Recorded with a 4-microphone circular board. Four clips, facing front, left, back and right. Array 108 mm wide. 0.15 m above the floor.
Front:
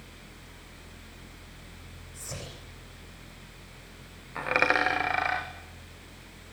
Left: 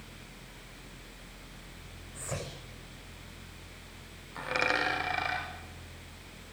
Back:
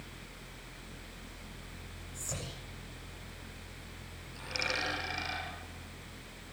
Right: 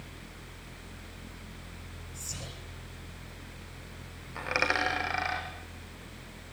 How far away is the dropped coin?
About 4.5 m.